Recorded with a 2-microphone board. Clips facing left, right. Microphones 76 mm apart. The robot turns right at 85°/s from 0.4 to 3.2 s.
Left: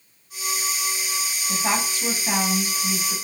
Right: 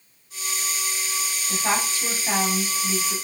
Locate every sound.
1.5 s a woman speaking: 20° left (ahead or behind), 1.6 m; by 3.1 s 20° right (ahead or behind), 1.6 m